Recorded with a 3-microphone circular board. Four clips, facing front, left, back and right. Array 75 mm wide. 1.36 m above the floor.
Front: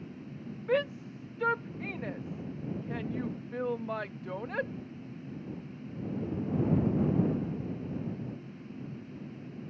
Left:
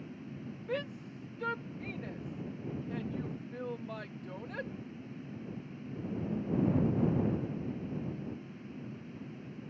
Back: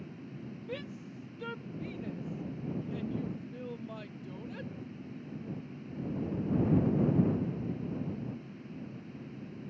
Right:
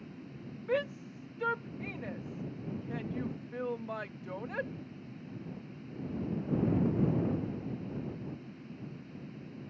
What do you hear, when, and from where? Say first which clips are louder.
0.7 s a shout: right 5 dB, front 14 dB; 25° right